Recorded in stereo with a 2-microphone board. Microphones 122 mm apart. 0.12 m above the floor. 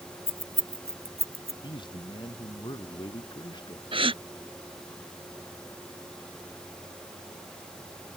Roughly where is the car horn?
No car horn in this recording.